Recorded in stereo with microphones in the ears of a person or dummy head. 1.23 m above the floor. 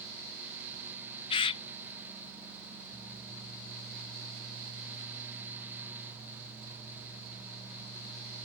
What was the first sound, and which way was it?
A bird, 25° left (ahead or behind).